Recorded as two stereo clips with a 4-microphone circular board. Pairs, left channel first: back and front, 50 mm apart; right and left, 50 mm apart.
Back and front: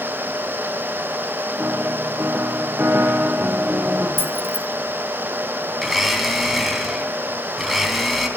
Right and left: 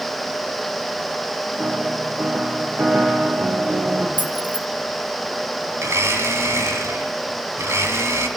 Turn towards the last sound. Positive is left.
turn(degrees=90)